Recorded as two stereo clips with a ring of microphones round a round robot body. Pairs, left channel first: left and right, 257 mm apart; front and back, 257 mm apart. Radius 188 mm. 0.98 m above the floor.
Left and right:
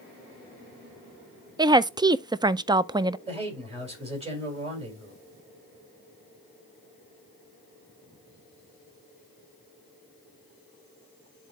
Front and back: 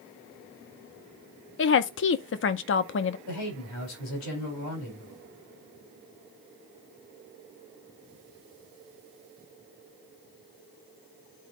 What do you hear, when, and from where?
1.6 s a woman speaking: 20° right, 0.5 m
3.3 s a man speaking: 25° right, 4.5 m